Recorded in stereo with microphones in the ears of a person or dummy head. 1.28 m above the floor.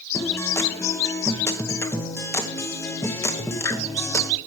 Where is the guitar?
10° left (ahead or behind), 0.7 m.